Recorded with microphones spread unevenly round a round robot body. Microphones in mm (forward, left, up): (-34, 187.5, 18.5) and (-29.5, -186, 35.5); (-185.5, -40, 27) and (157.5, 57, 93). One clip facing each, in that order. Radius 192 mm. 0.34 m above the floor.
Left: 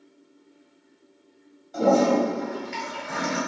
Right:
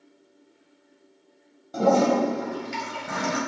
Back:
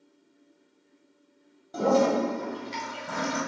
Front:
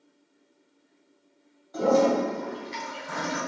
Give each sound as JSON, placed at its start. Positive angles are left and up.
{"t": 1.7, "sound": "a toilet flushing", "azimuth_deg": -130, "distance_m": 2.0}